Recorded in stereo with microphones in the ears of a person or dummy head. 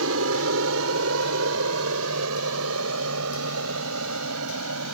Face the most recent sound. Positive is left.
turn(degrees=-75)  # may be behind; listen again after turning